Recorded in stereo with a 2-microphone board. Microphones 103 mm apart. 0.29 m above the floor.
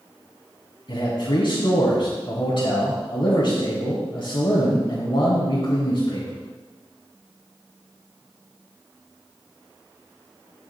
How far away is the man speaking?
About 1.8 m.